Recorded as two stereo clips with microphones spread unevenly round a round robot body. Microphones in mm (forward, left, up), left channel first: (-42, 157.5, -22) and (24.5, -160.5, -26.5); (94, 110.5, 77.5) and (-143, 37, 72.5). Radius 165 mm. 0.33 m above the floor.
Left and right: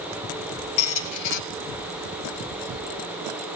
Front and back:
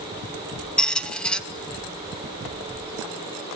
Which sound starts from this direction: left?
A squeak, at 0.8 s.